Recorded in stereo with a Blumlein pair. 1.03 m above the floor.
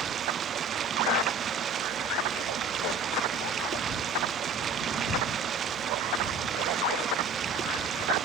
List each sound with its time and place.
0.0 s running water: 25° right